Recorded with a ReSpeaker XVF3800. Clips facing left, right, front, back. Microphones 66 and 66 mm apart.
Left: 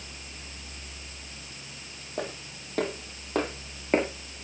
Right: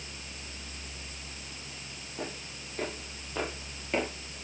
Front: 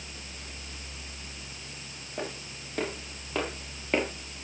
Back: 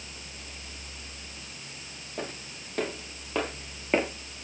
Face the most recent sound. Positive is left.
turn(degrees=110)